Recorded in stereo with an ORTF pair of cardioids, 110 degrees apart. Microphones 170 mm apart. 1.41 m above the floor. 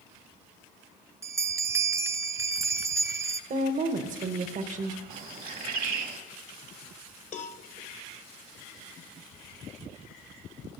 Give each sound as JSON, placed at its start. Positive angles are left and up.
{"t": 1.2, "sound": "a bell", "azimuth_deg": -15, "distance_m": 0.6}
{"t": 3.5, "sound": "a woman speaking", "azimuth_deg": -50, "distance_m": 1.2}
{"t": 5.1, "sound": "a bird", "azimuth_deg": -55, "distance_m": 1.8}
{"t": 7.3, "sound": "a cowbell", "azimuth_deg": 50, "distance_m": 0.9}